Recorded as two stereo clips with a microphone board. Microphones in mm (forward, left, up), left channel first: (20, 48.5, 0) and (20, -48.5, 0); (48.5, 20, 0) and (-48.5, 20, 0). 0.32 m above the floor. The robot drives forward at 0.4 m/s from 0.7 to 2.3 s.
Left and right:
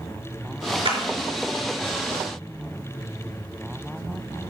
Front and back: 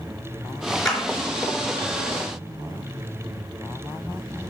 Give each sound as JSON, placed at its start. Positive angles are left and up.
{"t": 0.8, "sound": "a clap", "azimuth_deg": -85, "distance_m": 3.5}